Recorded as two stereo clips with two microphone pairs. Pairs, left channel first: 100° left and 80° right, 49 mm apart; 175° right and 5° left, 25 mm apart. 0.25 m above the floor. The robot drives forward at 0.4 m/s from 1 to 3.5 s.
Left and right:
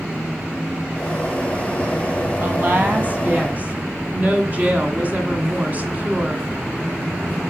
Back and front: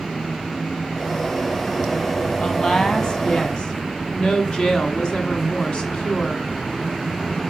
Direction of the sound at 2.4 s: 120° right.